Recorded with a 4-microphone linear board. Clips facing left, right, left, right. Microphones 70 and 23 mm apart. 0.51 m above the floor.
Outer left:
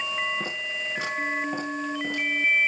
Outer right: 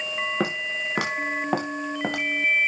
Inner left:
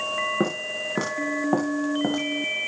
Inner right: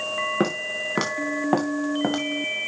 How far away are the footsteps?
About 3.5 m.